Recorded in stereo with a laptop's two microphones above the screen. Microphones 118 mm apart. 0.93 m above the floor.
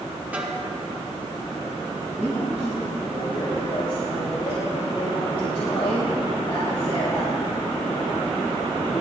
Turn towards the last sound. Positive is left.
turn(degrees=55)  # may be behind; listen again after turning